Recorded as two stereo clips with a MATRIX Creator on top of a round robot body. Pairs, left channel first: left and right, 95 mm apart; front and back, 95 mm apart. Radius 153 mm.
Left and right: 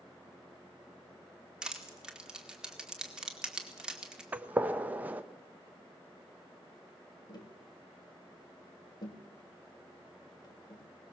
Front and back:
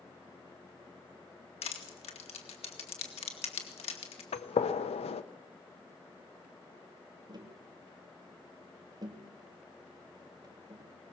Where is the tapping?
135° left, 2.5 m.